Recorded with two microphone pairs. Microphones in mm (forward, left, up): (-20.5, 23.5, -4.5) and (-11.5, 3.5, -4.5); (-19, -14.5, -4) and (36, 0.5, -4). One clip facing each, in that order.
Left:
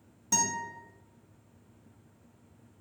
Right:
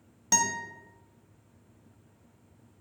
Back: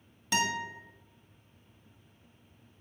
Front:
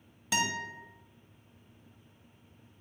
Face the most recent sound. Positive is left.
turn(degrees=-70)